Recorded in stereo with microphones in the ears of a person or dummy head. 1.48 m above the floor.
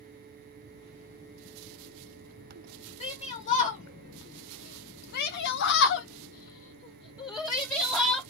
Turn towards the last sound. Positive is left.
turn(degrees=15)  # may be behind; listen again after turning